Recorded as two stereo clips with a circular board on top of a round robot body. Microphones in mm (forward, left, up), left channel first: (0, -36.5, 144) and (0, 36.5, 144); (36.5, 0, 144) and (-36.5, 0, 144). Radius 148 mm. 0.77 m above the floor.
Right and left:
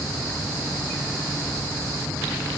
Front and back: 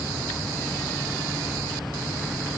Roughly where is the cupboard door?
No cupboard door in this recording.